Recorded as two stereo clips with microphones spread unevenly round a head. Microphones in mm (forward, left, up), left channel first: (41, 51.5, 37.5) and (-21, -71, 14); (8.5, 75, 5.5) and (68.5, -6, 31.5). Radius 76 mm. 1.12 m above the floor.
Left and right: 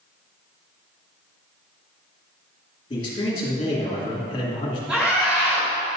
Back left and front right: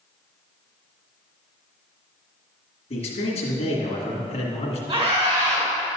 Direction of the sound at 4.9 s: 35° right.